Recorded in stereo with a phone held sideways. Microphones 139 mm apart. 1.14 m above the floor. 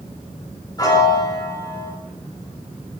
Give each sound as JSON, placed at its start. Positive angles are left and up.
{"t": 0.8, "sound": "a piano", "side_deg": 25, "distance_m": 6.5}